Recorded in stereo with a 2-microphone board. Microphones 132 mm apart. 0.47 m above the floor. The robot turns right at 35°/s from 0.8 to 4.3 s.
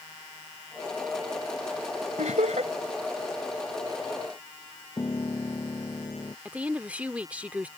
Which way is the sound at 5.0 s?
30° left (ahead or behind).